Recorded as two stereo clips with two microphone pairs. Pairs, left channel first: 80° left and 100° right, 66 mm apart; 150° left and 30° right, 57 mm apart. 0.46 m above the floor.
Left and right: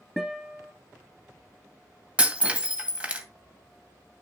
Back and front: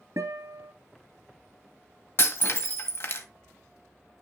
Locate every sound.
0.2 s a guitar: 10° right, 1.9 m
2.2 s breaking glass: 170° right, 1.6 m